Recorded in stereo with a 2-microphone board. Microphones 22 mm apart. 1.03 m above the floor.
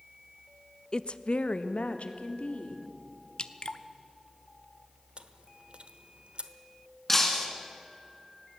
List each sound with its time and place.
0.9 s a woman speaking: 40° left (ahead or behind), 0.6 m; by 2.9 s 75° left (ahead or behind), 2.5 m
3.4 s dripping: 55° left (ahead or behind), 0.8 m
5.2 s chewing: 55° right (ahead or behind), 1.0 m
7.1 s breaking glass: 15° left (ahead or behind), 2.5 m